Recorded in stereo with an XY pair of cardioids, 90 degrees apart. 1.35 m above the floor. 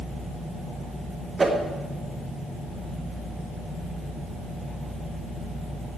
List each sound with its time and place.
1.4 s a whoosh: 30° right, 2.0 m